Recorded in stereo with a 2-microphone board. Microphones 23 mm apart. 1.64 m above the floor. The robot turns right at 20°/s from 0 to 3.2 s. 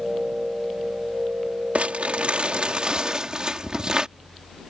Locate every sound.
1.8 s crumpling: 65° right (ahead or behind); by 4.1 s 35° right (ahead or behind)